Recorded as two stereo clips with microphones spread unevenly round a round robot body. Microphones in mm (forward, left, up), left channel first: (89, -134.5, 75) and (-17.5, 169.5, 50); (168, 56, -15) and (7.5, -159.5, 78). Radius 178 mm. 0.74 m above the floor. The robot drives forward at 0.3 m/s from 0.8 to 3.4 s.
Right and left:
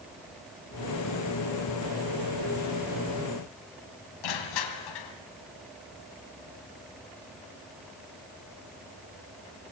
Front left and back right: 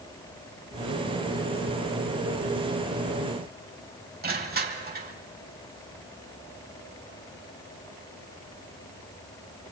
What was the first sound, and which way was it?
Crushing, 70° right.